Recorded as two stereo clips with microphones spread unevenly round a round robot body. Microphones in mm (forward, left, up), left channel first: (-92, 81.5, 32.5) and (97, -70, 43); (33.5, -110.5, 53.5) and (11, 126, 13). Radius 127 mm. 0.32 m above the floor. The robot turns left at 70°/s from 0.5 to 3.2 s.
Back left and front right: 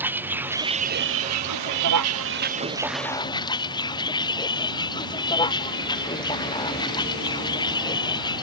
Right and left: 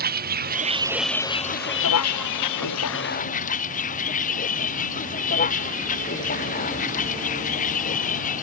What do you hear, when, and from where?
0.0 s a vehicle: 45° left; by 8.4 s 145° right